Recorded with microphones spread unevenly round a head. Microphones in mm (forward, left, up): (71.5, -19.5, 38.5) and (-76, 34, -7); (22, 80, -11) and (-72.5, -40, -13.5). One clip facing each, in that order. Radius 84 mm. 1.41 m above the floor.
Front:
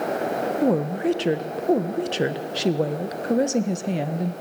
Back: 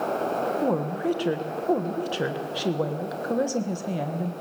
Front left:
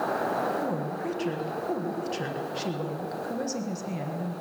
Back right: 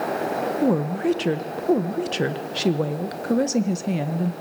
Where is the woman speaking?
90° right, 1.4 m.